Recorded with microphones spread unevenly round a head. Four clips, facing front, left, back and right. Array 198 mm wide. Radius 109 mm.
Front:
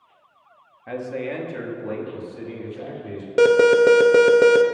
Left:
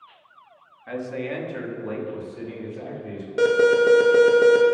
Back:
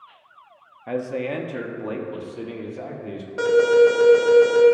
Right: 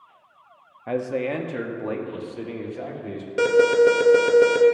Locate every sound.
0.9 s a man speaking: 115° right, 1.1 m; by 3.3 s 130° right, 2 m
3.4 s an alarm: straight ahead, 0.9 m